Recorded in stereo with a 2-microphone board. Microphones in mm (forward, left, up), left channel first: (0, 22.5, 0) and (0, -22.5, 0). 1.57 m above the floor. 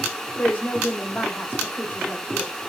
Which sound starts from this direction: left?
A woman speaking, at 0.4 s.